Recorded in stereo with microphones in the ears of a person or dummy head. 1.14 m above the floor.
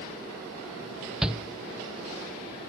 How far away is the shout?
About 0.9 m.